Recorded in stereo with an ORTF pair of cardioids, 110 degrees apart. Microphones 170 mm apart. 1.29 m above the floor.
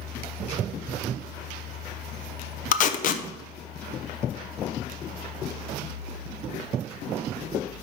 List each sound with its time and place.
0.0 s a fan: 60° left, 2 m
2.7 s tape being pulled: 50° left, 0.6 m